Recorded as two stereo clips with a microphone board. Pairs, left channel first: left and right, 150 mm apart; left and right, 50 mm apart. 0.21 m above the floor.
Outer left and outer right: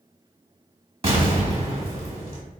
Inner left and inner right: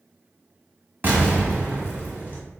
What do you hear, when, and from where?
1.0 s an explosion: 35° right (ahead or behind), 1.3 m